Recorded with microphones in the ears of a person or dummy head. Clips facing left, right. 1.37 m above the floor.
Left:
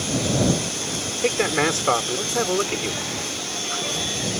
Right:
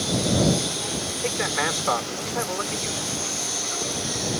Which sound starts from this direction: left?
A man speaking, at 1.2 s.